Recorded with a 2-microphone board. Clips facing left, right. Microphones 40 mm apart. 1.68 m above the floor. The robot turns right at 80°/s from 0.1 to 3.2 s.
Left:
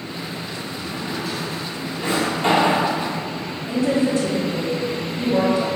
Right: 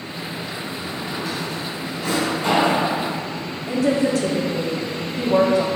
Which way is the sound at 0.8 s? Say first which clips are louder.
Left 2 dB; 25° right (ahead or behind).